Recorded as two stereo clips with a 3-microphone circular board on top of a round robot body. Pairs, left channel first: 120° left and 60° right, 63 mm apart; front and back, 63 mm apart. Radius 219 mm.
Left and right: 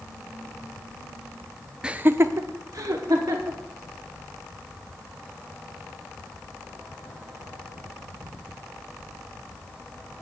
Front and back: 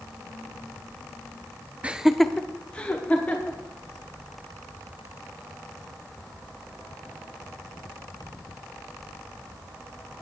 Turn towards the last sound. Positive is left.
turn(degrees=-60)